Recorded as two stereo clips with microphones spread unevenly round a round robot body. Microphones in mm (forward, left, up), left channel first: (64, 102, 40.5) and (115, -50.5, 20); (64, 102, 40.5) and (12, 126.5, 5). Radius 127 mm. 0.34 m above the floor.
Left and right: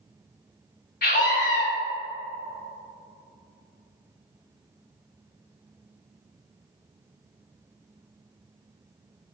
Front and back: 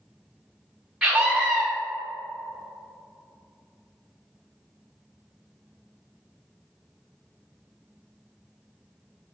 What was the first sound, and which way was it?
A scream, 80° left.